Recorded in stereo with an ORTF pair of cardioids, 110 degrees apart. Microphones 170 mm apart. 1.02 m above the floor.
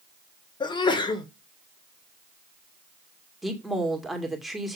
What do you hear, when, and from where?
0.6 s a sneeze: 25° left, 1.8 m
3.4 s a woman speaking: straight ahead, 2 m